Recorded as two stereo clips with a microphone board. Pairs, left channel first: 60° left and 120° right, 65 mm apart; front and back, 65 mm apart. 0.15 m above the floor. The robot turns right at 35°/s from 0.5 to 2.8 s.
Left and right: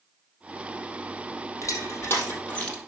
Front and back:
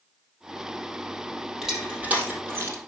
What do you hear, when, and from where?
1.6 s crushing: 95° left, 3 m; by 2.9 s 135° left, 3 m